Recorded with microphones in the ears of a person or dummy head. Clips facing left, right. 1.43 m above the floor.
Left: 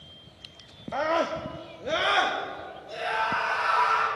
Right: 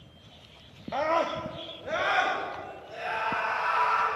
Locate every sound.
0.9 s a scream: 5° left (ahead or behind), 0.6 m; by 4.1 s 65° left (ahead or behind), 3 m